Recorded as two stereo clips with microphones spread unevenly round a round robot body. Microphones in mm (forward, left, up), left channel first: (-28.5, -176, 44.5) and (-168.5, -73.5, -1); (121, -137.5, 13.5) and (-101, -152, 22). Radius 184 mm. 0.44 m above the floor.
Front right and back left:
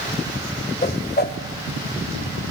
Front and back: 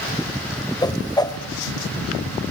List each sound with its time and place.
0.8 s a whoosh: 65° right, 2.0 m